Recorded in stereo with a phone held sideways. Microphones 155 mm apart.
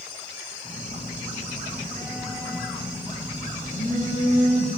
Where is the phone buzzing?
80° right, 2.5 m.